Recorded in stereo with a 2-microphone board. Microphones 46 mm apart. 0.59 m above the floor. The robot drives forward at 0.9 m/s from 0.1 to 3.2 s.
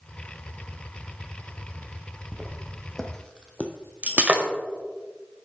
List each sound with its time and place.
2.3 s footsteps: centre (ahead or behind), 2 m; by 4.3 s 45° left (ahead or behind), 1.1 m
4.0 s breaking glass: 35° right (ahead or behind), 1.5 m